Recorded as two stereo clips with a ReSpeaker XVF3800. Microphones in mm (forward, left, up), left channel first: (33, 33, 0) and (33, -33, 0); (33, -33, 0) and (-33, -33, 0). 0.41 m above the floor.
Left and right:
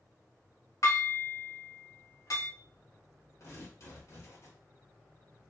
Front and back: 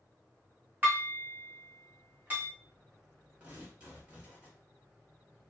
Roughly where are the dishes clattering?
Behind left.